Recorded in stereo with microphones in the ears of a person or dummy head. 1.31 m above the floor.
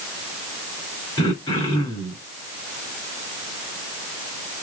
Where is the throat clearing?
25° left (ahead or behind), 1.6 m.